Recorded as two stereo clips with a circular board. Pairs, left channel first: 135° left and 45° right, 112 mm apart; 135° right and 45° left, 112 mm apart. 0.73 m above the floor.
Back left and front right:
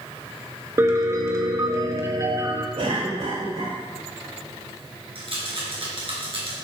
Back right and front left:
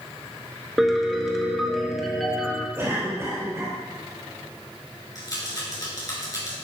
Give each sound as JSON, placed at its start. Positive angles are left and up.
{"t": 0.8, "sound": "a piano", "azimuth_deg": -40, "distance_m": 1.1}
{"t": 2.8, "sound": "a cough", "azimuth_deg": -20, "distance_m": 3.0}
{"t": 5.2, "sound": "a rattle", "azimuth_deg": -80, "distance_m": 2.5}